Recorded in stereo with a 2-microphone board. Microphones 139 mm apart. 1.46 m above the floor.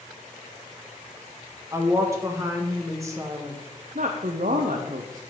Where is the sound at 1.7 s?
20° right (ahead or behind), 1.3 m.